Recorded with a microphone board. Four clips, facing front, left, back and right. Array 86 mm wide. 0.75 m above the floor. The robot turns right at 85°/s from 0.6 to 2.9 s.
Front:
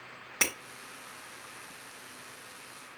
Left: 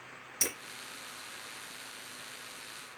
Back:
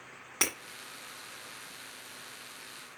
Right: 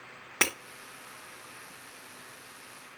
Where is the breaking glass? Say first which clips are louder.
Right 9 dB, front 1 dB; 90° right, 1.6 m.